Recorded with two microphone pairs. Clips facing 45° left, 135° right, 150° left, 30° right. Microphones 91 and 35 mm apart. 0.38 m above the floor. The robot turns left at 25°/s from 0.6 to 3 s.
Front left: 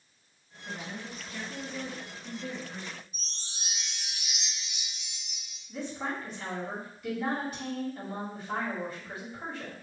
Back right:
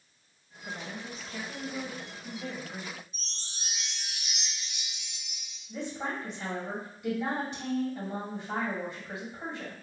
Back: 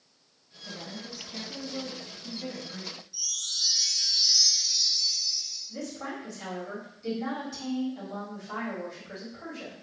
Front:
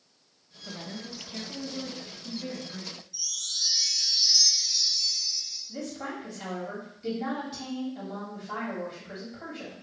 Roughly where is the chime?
Ahead left.